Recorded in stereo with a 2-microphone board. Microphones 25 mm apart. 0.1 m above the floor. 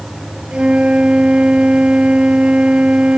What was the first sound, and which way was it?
A flute, 50° right (ahead or behind).